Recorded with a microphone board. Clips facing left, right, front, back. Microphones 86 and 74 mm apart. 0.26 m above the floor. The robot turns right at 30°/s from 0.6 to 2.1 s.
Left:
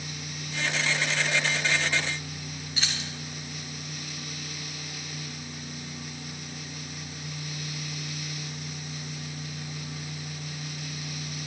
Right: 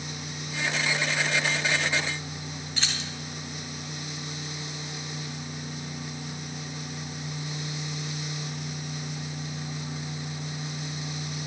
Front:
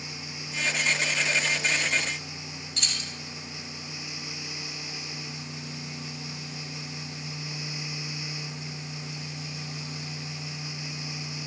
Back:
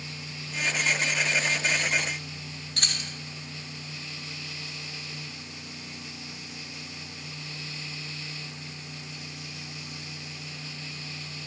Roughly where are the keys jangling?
Behind.